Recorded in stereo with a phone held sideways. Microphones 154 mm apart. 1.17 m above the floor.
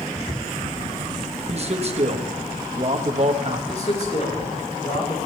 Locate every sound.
1.5 s a man speaking: 45° right (ahead or behind), 1.3 m
3.7 s a man speaking: 45° left (ahead or behind), 4 m